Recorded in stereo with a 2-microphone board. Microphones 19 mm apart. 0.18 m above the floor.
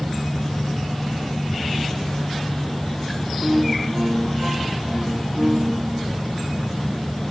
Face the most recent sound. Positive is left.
turn(degrees=-30)  # may be behind; listen again after turning